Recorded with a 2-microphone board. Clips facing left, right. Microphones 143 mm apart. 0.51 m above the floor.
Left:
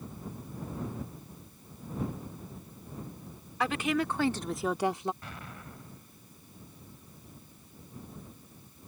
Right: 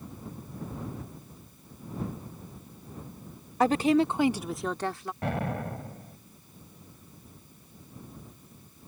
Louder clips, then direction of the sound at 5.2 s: Right 15 dB; 70° right (ahead or behind).